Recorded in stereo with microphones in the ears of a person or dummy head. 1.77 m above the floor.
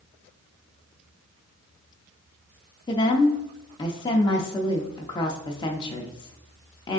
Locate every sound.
2.9 s a woman speaking: 20° left (ahead or behind), 0.5 m